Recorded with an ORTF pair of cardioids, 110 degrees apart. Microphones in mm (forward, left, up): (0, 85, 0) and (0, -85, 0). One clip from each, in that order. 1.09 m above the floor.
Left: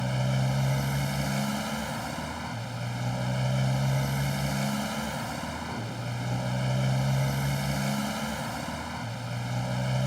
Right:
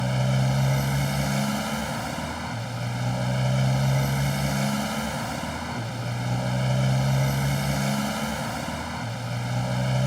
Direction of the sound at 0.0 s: 20° right.